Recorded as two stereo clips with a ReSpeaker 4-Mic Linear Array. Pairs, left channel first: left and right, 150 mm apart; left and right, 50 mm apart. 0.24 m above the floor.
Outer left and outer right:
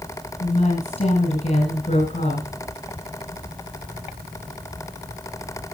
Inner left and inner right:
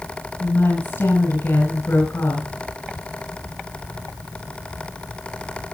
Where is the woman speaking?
45° left (ahead or behind), 2 m.